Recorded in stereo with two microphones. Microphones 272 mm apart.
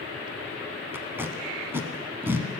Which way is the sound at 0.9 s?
10° right (ahead or behind).